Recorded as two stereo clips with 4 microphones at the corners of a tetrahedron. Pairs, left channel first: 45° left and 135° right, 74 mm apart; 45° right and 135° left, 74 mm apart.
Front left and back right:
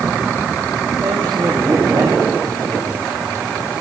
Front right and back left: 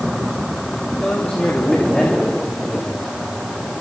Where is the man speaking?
120° right, 3 m; by 3.5 s 135° right, 4 m.